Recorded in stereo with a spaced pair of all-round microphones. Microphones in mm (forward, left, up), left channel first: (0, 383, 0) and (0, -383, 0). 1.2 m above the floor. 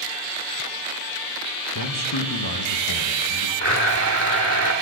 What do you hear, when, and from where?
1.8 s a man speaking: 30° left (ahead or behind), 1.2 m
3.6 s a blender: 20° right (ahead or behind), 0.9 m